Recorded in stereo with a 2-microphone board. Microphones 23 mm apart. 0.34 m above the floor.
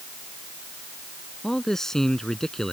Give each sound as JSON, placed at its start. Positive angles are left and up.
{"t": 1.4, "sound": "a man speaking", "side_deg": 20}